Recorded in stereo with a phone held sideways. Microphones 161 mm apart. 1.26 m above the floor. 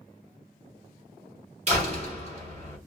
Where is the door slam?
40° right (ahead or behind), 3.5 m.